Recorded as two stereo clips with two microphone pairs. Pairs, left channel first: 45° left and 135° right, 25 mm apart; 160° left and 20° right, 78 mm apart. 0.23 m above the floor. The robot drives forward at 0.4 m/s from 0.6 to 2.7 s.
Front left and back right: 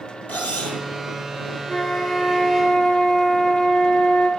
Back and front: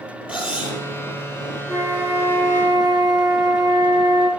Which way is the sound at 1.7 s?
15° left.